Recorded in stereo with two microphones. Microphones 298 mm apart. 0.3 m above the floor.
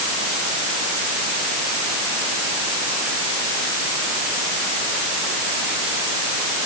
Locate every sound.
Only background noise.